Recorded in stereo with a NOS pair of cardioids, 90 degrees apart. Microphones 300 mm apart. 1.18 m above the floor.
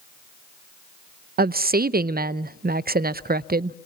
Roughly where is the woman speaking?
Ahead right.